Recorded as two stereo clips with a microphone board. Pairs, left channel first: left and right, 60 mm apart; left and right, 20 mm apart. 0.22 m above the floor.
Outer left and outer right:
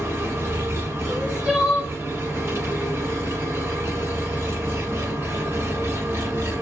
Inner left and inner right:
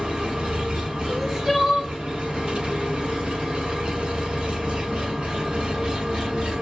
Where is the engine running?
45° right (ahead or behind), 1.2 m.